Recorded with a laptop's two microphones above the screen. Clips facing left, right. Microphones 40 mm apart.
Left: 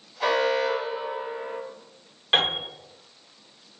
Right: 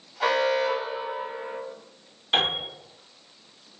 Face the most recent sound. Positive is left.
turn(degrees=45)  # may be behind; listen again after turning